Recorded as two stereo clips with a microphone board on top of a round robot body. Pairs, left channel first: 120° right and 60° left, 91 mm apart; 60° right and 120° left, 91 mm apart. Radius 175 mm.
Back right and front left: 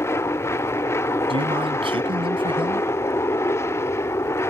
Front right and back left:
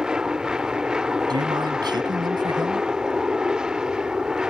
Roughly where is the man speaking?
Left.